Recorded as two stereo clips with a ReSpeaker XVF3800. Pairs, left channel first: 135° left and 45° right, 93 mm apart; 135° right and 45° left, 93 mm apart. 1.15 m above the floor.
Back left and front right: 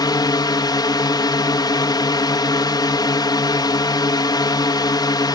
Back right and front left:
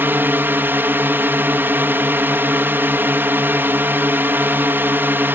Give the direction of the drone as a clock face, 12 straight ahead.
8 o'clock.